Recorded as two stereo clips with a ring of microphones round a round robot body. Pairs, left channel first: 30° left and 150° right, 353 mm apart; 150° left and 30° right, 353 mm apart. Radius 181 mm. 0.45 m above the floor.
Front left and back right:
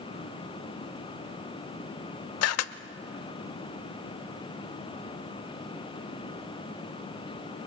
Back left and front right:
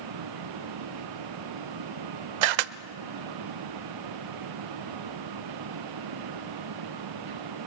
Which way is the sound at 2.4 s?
20° right.